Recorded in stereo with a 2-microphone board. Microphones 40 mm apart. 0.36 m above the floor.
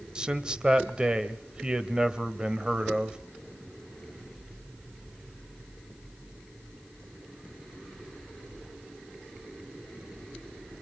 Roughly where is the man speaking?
Right.